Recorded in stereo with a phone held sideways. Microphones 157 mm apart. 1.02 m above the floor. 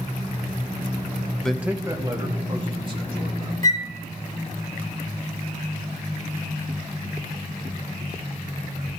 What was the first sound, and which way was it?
A man speaking, 5° left (ahead or behind).